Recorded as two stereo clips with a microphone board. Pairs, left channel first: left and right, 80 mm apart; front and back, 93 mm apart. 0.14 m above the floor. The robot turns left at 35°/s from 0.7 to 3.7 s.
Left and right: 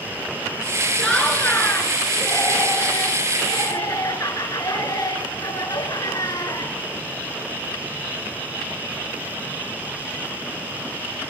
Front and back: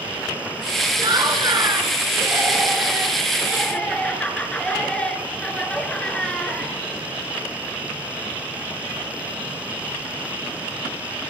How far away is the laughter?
About 2.5 m.